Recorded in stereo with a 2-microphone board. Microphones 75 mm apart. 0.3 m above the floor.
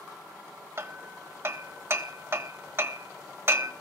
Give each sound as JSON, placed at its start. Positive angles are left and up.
{"t": 0.8, "sound": "hammering", "side_deg": -35, "distance_m": 0.9}